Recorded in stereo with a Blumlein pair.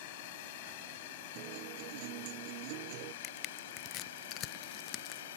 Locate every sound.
0.0 s a drone: 50° left; by 5.4 s 60° left
1.4 s a guitar: 45° right
3.2 s crushing: 35° left